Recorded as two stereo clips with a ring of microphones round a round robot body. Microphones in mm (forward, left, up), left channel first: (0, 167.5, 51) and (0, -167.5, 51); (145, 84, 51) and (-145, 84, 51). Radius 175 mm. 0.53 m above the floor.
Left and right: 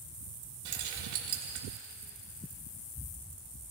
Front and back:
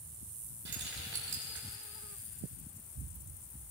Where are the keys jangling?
125° right, 1.7 m.